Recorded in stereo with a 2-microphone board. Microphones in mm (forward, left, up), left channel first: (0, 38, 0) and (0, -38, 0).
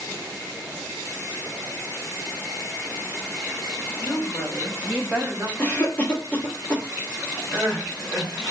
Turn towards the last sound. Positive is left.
turn(degrees=10)  # may be behind; listen again after turning